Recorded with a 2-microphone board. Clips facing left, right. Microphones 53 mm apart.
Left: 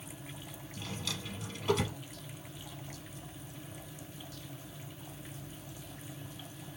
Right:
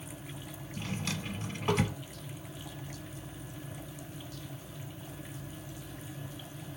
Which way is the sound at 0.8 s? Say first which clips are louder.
Right 4 dB; 35° right (ahead or behind).